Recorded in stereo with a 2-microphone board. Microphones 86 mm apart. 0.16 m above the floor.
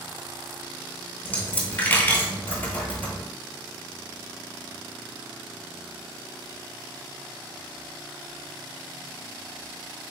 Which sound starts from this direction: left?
A dropped coin, at 1.2 s.